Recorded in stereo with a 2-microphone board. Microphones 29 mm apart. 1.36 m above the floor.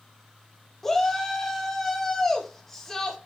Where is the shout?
15° left (ahead or behind), 2.5 m.